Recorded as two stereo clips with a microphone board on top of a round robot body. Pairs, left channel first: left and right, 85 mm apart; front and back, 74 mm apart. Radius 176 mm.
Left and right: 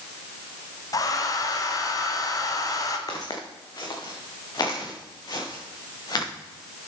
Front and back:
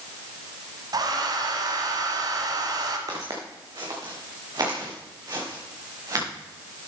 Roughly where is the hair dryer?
Behind left.